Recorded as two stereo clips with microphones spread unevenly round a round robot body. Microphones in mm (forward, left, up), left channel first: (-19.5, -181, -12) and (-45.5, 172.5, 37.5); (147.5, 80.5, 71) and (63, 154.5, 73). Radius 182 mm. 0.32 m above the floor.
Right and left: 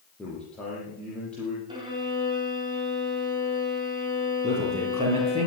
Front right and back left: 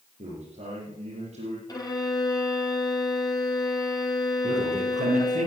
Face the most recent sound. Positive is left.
turn(degrees=170)